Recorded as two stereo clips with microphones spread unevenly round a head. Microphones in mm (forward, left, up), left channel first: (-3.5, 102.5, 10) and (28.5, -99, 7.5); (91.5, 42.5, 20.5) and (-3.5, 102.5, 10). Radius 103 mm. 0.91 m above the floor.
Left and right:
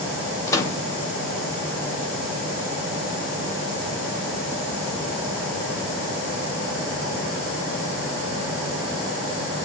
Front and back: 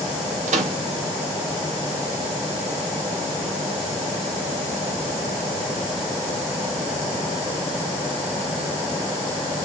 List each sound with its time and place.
0.5 s a microwave: 175° left, 0.8 m